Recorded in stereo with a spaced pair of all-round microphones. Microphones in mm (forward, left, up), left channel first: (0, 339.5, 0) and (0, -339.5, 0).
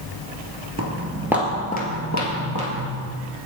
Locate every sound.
0.8 s footsteps: 20° right (ahead or behind), 1.4 m; by 2.9 s 40° left (ahead or behind), 2 m